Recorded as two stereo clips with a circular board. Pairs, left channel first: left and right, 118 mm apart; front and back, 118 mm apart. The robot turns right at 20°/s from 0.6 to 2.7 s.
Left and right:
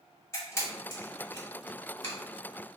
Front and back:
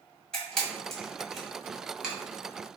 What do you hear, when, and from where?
0.3 s a camera shutter: 75° left, 1.5 m; by 2.1 s 105° left, 1.5 m